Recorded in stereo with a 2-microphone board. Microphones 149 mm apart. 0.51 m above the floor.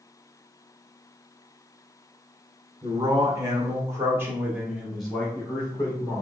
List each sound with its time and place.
2.8 s a man speaking: 25° right (ahead or behind), 1.8 m; by 6.2 s 15° left (ahead or behind), 1.7 m